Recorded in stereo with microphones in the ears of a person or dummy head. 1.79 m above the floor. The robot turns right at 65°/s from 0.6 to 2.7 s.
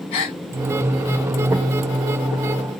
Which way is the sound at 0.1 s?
30° left (ahead or behind).